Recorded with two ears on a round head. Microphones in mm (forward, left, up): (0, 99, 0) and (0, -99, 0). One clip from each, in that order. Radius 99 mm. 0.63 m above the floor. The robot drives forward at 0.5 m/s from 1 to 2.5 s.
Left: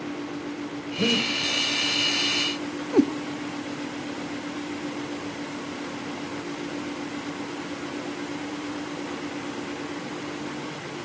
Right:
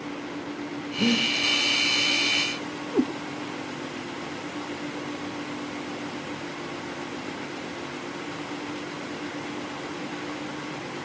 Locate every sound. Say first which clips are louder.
1.0 s breathing: even; 25° left (ahead or behind), 2.5 m
2.9 s a cat meowing: left 5 dB; 60° left (ahead or behind), 1.0 m